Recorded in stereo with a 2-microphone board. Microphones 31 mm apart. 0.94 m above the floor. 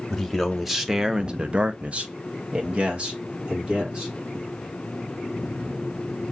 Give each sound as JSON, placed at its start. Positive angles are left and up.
{"t": 0.1, "sound": "a man speaking", "side_deg": 0, "distance_m": 0.8}